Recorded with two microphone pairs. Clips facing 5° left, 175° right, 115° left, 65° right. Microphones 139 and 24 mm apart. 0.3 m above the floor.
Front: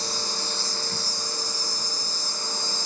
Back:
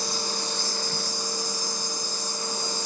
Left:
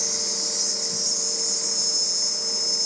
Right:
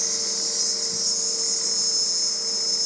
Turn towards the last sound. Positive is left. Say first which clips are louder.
# back 2 dB, even
turn(degrees=25)